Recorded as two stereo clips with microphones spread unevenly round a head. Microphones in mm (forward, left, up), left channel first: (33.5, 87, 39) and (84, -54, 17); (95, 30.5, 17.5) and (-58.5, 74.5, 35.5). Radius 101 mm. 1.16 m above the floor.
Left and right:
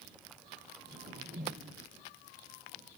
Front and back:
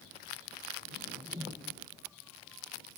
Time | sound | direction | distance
0.9 | a whoosh | 125° right | ?